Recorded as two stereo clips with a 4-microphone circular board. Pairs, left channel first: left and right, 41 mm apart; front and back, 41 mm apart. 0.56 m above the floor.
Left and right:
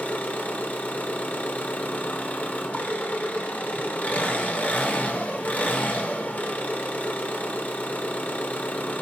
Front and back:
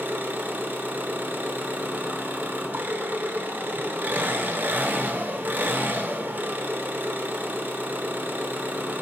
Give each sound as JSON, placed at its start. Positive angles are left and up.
{"t": 0.0, "sound": "an engine running", "azimuth_deg": 140, "distance_m": 0.9}